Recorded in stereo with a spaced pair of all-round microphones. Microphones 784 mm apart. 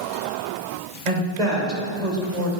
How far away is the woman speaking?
About 3.5 m.